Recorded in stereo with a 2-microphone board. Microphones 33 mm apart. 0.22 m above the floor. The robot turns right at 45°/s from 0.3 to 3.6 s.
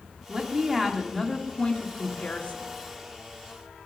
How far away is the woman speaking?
About 1.5 m.